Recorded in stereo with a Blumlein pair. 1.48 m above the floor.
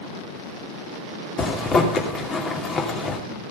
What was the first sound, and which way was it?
A zipper, 25° left.